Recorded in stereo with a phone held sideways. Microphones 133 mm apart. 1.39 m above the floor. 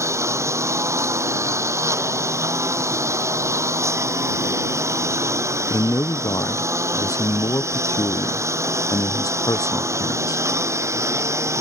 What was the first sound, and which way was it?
A lawn mower, 20° right (ahead or behind).